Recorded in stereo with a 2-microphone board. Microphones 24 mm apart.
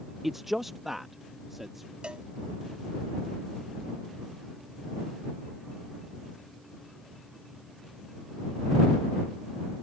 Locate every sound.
0.2 s a man speaking: 5° right (ahead or behind)
2.0 s a cowbell: 50° right (ahead or behind)